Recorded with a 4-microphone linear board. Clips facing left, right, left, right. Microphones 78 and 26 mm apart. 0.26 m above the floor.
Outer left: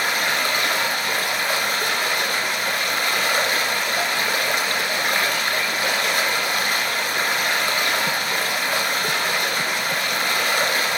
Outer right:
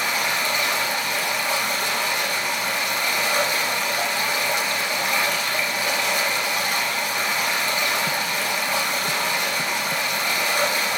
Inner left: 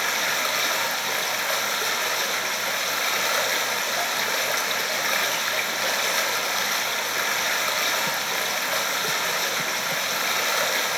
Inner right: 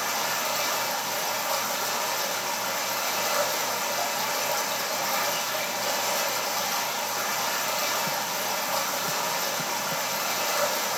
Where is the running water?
60° left (ahead or behind), 1.5 m.